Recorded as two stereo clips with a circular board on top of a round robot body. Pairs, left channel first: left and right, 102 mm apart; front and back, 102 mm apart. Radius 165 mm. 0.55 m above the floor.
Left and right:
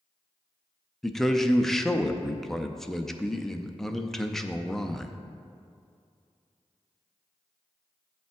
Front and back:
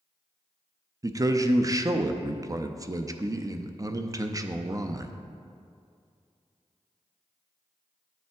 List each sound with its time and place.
1.0 s a man speaking: 175° left, 0.7 m